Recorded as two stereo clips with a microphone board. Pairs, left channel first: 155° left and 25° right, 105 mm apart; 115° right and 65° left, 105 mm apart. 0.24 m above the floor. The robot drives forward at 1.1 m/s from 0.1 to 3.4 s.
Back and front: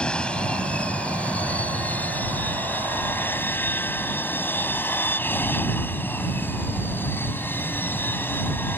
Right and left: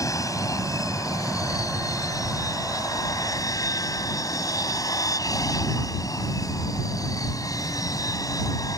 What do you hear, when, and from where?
0.0 s an aircraft: 130° right; by 8.8 s 140° right